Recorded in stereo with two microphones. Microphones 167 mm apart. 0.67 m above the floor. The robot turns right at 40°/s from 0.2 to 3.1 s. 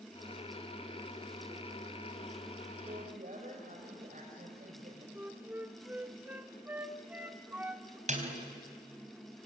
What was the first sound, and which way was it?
A woman speaking, 45° right (ahead or behind).